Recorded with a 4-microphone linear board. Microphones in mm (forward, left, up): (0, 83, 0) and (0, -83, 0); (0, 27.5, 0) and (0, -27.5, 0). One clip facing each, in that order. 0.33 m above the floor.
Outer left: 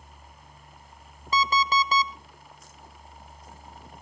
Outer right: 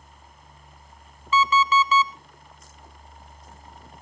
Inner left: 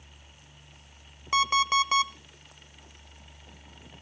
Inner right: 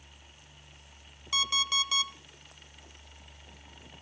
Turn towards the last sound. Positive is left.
turn(degrees=40)  # may be behind; listen again after turning